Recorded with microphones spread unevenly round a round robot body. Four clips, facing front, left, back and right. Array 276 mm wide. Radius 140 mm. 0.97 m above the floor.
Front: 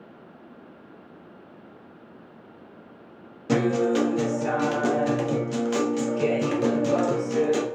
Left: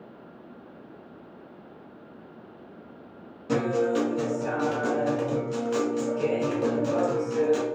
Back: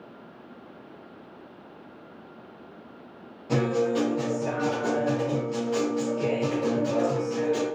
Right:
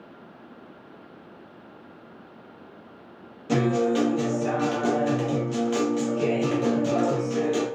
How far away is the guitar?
About 0.7 m.